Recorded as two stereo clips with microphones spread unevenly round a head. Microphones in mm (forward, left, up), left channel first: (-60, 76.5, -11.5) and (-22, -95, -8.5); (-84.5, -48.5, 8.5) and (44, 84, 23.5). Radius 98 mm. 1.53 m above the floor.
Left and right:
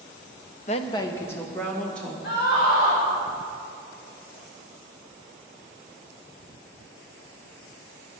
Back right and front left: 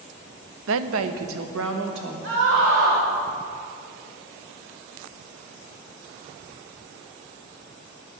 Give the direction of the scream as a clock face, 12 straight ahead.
10 o'clock.